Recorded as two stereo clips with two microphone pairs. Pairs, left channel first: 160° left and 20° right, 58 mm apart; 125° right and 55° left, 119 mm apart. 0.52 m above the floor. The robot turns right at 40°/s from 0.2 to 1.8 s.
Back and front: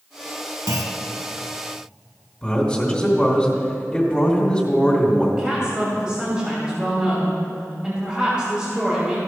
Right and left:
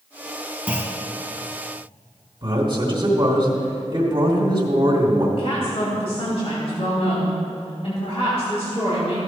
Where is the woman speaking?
100° right, 3 m.